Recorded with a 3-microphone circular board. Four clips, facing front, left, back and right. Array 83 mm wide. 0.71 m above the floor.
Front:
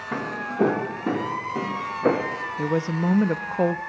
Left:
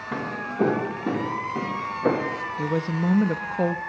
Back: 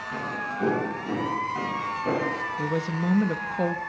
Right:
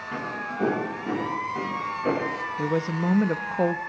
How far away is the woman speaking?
About 0.6 m.